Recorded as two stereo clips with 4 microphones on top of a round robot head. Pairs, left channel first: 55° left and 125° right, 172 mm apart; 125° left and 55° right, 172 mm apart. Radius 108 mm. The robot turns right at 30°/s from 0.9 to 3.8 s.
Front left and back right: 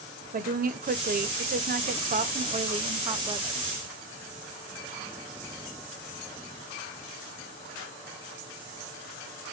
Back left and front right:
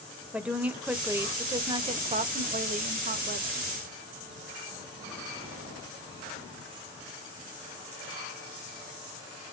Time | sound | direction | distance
0.3 | a woman speaking | 135° right | 0.7 m